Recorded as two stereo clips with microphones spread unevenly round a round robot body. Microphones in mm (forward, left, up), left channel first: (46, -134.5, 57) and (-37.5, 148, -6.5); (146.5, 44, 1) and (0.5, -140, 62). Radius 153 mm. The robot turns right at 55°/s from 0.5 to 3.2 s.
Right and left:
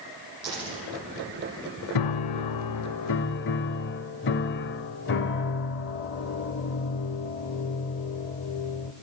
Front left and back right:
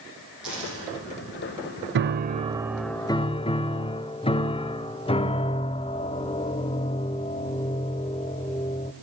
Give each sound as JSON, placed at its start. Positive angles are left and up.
{"t": 0.4, "sound": "a dropped coin", "azimuth_deg": 145, "distance_m": 9.0}
{"t": 1.9, "sound": "a piano", "azimuth_deg": -90, "distance_m": 0.5}